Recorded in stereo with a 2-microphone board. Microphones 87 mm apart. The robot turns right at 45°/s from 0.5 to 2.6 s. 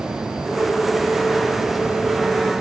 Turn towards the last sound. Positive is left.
No sound to turn to.